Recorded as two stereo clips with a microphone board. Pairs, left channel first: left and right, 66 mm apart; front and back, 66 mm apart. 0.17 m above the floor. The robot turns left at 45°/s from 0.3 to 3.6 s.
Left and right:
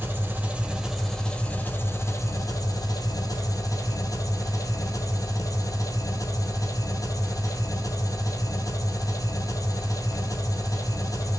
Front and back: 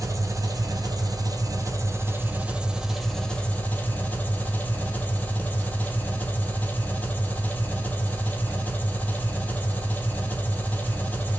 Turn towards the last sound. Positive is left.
turn(degrees=65)